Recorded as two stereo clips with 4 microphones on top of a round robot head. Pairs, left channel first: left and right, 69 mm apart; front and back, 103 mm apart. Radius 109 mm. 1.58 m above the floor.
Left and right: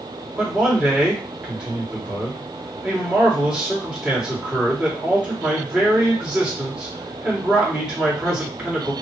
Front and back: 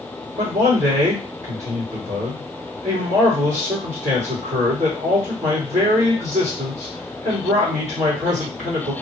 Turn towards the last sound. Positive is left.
turn(degrees=-170)